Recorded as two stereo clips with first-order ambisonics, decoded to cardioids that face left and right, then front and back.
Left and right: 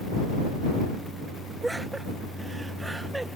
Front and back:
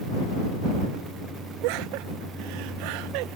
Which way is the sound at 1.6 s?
170° right.